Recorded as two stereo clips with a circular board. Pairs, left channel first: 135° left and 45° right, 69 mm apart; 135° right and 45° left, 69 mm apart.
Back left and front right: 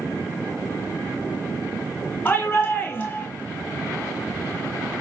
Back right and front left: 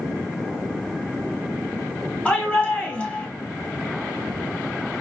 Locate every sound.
2.2 s a shout: 170° left, 1.4 m